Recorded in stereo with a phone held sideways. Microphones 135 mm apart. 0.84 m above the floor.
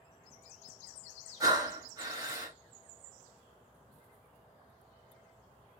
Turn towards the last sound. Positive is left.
turn(degrees=-30)  # may be behind; listen again after turning